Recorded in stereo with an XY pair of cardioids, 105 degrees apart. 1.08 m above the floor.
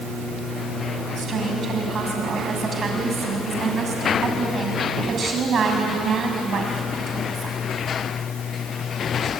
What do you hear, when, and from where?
1.2 s a woman speaking: 45° right, 6.5 m